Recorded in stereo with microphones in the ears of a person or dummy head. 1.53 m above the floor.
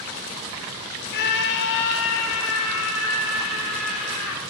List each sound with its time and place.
1.1 s a scream: 60° left (ahead or behind), 1.2 m; by 4.4 s 75° left (ahead or behind), 2.5 m